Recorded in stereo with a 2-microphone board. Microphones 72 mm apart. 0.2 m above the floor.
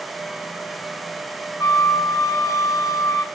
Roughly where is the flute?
Left.